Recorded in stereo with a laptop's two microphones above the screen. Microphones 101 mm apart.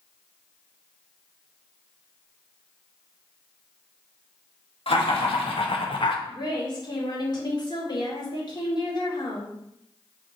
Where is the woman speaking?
45° left (ahead or behind), 2.5 m.